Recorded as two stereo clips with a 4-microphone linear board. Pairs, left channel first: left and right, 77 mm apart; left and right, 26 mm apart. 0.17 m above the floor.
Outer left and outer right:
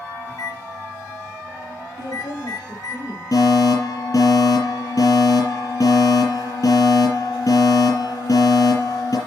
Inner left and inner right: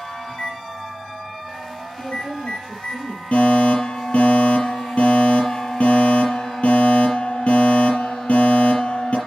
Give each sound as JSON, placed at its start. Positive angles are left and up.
{"t": 0.3, "sound": "a microwave", "side_deg": 65, "distance_m": 6.5}
{"t": 2.0, "sound": "a woman speaking", "side_deg": 65, "distance_m": 6.0}
{"t": 3.3, "sound": "a fire alarm", "side_deg": 50, "distance_m": 6.5}